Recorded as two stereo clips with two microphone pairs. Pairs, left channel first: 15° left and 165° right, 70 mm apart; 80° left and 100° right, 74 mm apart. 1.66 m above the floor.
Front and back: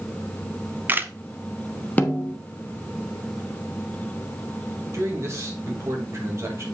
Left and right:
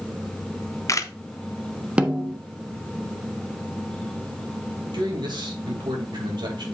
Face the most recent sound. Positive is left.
turn(degrees=-115)